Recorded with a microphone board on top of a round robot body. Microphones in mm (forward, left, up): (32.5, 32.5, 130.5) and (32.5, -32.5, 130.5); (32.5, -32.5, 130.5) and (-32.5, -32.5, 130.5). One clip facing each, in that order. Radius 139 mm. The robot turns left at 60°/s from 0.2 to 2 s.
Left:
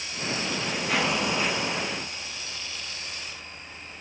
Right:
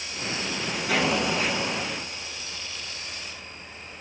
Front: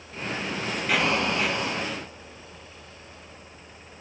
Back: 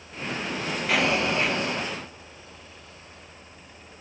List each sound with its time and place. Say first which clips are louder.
0.9 s an explosion: right 2 dB, back 1 dB; 90° right, 3 m; by 1.9 s 155° right, 3 m